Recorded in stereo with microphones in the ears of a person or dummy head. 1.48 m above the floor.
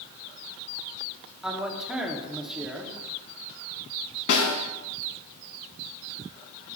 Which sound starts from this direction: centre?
A man speaking, at 1.4 s.